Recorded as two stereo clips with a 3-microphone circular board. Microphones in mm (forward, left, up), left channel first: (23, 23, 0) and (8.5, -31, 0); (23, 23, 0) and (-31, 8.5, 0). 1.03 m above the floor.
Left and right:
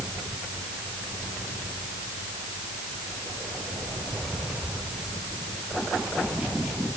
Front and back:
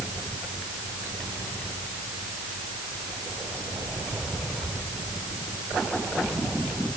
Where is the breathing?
I don't hear breathing.